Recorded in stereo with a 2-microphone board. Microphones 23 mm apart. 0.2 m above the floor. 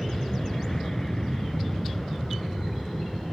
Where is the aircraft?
20° left (ahead or behind).